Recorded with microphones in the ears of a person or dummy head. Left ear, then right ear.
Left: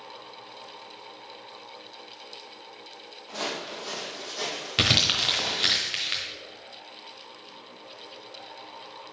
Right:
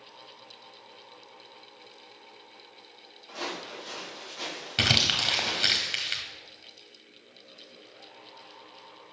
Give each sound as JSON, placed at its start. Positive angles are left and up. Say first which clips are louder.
{"t": 3.3, "sound": "footsteps", "louder": "left 3 dB", "side_deg": 55, "distance_m": 2.0}
{"t": 4.8, "sound": "crumpling", "louder": "left 1 dB", "side_deg": 0, "distance_m": 1.1}